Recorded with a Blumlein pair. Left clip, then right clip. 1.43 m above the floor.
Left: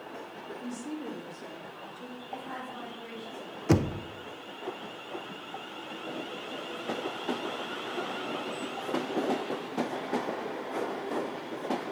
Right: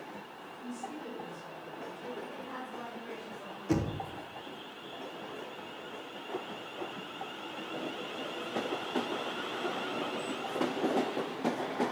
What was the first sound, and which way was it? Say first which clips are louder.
A woman speaking: left 1 dB; 25° left.